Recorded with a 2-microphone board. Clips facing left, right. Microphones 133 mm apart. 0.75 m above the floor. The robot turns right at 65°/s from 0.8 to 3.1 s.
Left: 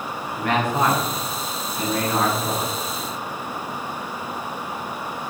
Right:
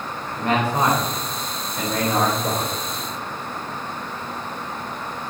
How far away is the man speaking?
About 3 m.